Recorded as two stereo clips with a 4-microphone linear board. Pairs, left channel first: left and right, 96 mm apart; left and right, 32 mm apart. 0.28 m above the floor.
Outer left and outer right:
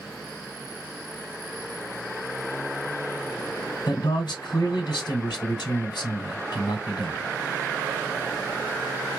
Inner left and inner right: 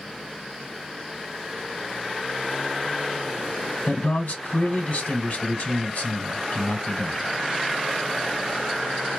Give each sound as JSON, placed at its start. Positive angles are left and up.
{"t": 3.9, "sound": "a man speaking", "side_deg": 55, "distance_m": 2.0}